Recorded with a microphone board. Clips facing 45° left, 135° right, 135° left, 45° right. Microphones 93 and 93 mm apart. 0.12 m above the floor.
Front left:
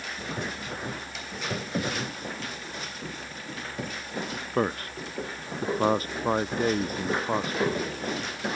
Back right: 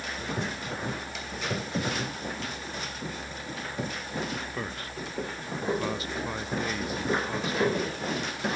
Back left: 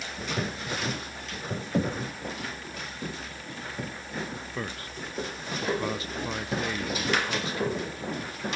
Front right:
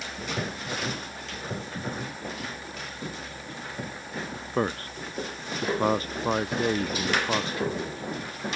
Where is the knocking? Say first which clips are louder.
Front left 2 dB, back left 6 dB; 120° left.